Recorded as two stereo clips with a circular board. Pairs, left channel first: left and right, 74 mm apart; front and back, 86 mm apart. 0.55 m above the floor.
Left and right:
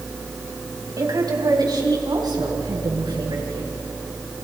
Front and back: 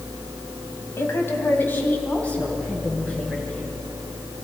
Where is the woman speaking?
60° right, 3 m; by 3.7 s 80° right, 7 m.